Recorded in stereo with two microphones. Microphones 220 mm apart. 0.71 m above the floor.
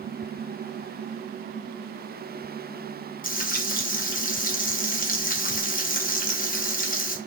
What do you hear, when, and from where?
3.2 s frying: 40° left (ahead or behind), 0.6 m